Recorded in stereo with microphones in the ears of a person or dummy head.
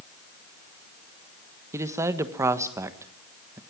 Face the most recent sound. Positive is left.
turn(degrees=-15)  # may be behind; listen again after turning